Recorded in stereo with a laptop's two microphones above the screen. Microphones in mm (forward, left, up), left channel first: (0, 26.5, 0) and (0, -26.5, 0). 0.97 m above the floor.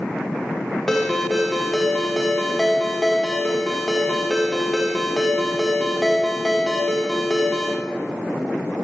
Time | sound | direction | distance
0.9 | a ringtone | 5° left (ahead or behind) | 1.2 m